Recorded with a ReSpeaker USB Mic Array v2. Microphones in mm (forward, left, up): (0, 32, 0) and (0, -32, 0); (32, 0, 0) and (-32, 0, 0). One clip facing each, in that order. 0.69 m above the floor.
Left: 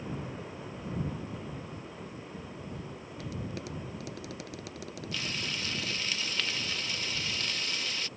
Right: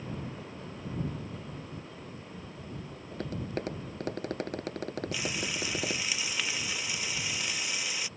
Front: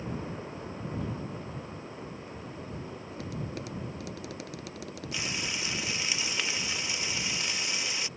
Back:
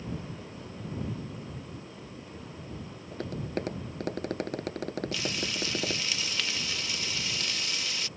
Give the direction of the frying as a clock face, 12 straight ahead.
1 o'clock.